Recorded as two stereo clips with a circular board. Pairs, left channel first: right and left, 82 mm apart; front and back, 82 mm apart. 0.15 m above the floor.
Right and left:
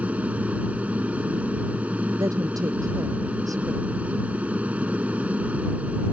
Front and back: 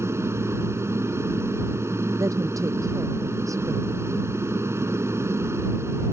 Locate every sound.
0.0 s an aircraft: 155° left
2.2 s a woman speaking: 135° left